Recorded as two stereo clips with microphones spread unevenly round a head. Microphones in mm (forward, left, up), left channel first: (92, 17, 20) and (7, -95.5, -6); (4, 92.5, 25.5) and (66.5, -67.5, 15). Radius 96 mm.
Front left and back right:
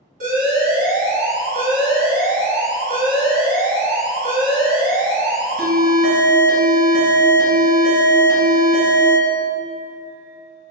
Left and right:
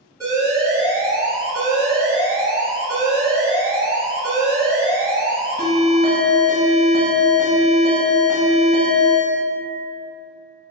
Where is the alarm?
145° right, 0.9 m.